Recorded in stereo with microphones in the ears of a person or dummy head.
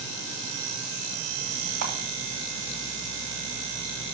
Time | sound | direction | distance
1.8 | a camera shutter | 75° right (ahead or behind) | 1.6 m